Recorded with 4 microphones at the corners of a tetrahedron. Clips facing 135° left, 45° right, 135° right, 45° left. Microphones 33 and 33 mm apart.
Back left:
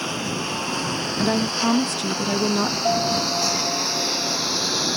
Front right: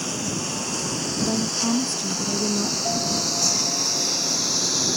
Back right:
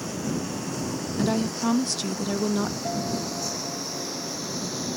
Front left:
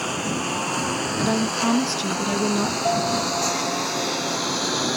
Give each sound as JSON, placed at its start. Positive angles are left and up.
{"t": 0.0, "sound": "a lawn mower", "azimuth_deg": 70}
{"t": 1.2, "sound": "a woman speaking", "azimuth_deg": 115}
{"t": 2.8, "sound": "a piano", "azimuth_deg": 85}